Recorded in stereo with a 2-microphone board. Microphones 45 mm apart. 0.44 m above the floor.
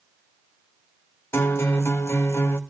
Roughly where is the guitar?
Left.